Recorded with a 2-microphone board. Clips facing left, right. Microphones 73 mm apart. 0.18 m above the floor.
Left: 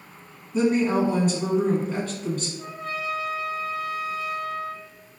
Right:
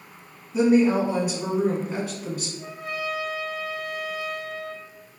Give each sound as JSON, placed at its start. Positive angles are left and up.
{"t": 0.5, "sound": "a woman speaking", "side_deg": -10, "distance_m": 1.2}
{"t": 2.6, "sound": "a trumpet", "side_deg": -25, "distance_m": 1.7}